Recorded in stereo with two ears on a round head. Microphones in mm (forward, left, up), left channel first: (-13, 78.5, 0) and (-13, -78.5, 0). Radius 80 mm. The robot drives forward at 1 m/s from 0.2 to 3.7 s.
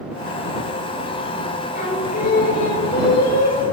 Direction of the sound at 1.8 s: 45° left (ahead or behind).